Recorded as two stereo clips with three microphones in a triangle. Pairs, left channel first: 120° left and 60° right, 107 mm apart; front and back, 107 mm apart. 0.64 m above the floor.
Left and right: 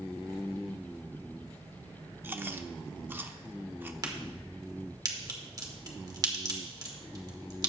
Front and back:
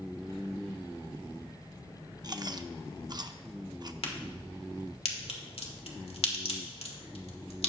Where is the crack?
10° right, 1.7 m.